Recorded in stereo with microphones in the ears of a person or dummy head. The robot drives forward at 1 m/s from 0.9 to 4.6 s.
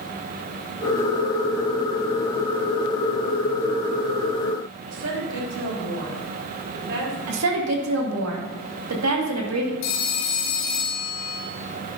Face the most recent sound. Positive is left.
turn(degrees=55)  # may be behind; listen again after turning